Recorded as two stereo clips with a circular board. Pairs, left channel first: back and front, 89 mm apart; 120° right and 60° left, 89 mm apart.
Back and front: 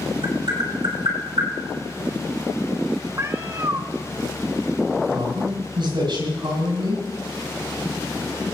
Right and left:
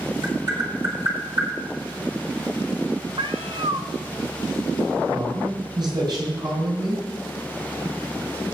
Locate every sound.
0.2 s tapping: 20° left, 4 m
3.2 s a cat meowing: 50° left, 1.0 m
5.1 s a man speaking: 25° left, 6.5 m